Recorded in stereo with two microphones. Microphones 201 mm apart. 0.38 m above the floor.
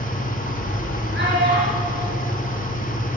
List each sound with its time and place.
0.0 s an engine running: 45° left (ahead or behind), 2.5 m
1.1 s a child speaking: 65° right (ahead or behind), 6 m